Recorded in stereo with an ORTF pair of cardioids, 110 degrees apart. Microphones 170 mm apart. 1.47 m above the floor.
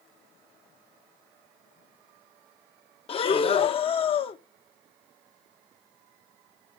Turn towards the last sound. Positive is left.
turn(degrees=35)